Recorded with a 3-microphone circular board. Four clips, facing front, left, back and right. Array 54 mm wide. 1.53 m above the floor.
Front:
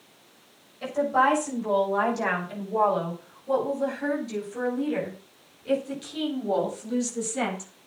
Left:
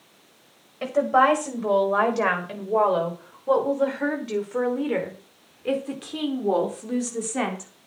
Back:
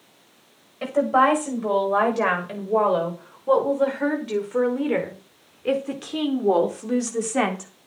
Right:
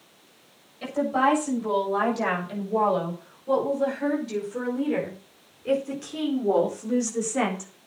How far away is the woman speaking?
About 7.5 m.